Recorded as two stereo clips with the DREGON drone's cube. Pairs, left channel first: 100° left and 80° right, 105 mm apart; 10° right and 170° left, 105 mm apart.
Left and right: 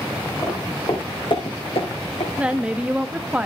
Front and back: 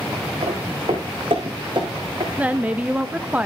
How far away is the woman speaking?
About 0.7 m.